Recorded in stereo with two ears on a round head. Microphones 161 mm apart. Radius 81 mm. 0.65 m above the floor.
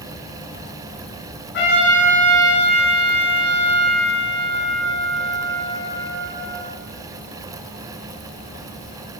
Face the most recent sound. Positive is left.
turn(degrees=65)  # may be behind; listen again after turning